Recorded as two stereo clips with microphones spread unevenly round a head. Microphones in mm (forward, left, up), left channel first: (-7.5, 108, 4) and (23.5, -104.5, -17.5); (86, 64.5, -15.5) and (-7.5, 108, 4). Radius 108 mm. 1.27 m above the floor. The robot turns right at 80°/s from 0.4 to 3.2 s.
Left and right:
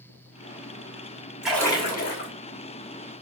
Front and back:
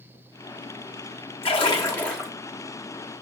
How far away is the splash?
About 1.4 m.